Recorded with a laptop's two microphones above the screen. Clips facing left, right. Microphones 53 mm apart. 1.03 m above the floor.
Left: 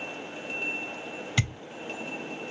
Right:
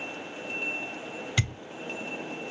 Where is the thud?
Centre (ahead or behind), 2.5 m.